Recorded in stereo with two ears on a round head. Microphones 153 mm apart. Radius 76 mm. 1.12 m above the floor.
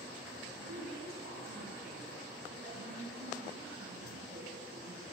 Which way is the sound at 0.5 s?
65° right (ahead or behind).